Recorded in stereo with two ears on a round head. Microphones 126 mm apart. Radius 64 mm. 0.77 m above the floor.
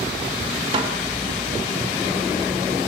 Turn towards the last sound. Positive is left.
turn(degrees=-40)  # may be behind; listen again after turning